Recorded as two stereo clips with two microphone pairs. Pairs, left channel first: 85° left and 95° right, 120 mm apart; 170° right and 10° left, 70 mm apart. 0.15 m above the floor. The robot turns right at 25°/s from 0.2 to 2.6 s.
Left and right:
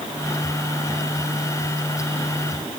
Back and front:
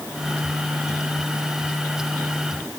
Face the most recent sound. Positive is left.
No sound to turn to.